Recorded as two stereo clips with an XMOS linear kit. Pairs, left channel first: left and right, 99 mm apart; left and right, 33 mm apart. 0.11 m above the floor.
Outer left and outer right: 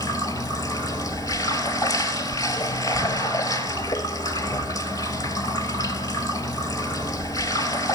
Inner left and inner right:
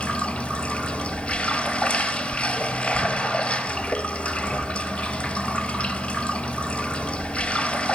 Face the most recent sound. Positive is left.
turn(degrees=40)  # may be behind; listen again after turning